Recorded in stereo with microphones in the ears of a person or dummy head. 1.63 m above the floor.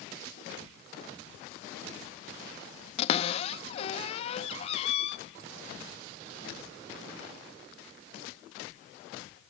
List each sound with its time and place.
3.0 s a cupboard door: 35° left (ahead or behind), 0.9 m